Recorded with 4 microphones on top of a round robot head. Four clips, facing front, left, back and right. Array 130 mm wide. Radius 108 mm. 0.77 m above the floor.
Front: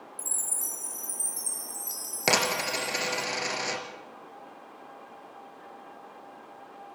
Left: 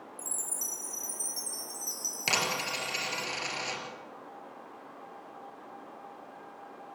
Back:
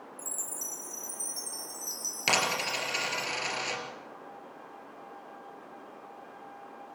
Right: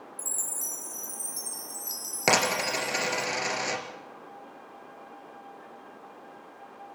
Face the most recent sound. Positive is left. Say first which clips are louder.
# right 7 dB, front 3 dB
turn(degrees=-55)